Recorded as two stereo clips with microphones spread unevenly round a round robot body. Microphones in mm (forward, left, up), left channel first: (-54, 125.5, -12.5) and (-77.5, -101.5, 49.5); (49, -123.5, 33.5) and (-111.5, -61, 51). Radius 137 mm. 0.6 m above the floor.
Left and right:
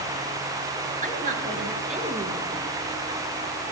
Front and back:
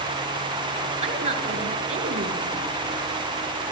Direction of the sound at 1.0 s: 150° right.